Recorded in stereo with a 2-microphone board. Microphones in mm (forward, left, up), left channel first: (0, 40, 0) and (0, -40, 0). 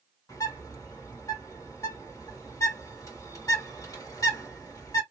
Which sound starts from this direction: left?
A bird, at 0.3 s.